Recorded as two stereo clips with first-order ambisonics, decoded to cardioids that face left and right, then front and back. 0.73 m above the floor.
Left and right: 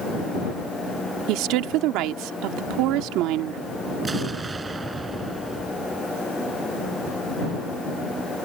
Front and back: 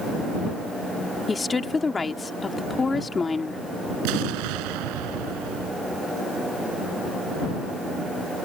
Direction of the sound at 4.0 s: 165° right.